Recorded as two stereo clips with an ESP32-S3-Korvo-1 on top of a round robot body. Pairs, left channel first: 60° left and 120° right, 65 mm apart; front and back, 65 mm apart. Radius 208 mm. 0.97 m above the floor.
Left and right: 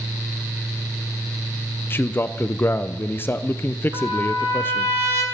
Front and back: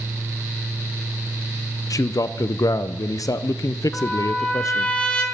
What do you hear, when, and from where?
1.9 s a man speaking: 10° left, 0.5 m
3.9 s a trumpet: 75° right, 2.0 m